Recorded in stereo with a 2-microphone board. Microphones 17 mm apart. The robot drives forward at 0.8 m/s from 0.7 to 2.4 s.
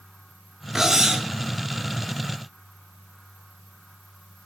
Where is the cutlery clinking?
30° right (ahead or behind), 1.0 m; by 1.3 s 35° right (ahead or behind), 0.8 m.